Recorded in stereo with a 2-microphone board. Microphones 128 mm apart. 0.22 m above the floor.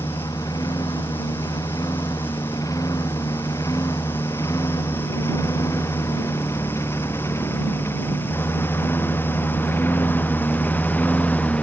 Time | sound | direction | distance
0.0 | a lawn mower | 30° left (ahead or behind) | ?